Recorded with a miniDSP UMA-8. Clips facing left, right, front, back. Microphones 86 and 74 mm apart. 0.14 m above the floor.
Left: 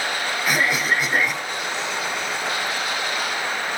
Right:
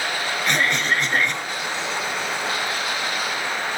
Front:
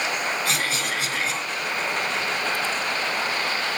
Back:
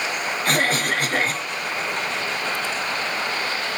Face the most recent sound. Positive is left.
turn(degrees=170)